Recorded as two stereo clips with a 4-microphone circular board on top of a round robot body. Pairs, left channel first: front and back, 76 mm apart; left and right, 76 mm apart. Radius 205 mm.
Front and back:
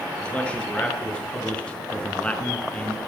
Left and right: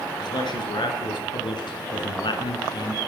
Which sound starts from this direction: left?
A man speaking, at 0.2 s.